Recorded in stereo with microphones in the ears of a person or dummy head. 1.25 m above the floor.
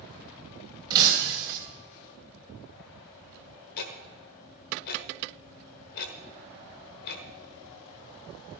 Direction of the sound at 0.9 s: 25° right (ahead or behind).